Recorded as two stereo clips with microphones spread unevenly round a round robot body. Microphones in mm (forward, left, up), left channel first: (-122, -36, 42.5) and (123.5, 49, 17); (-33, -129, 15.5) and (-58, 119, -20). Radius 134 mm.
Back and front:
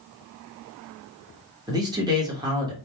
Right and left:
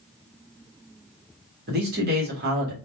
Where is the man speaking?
85° left, 1.4 m.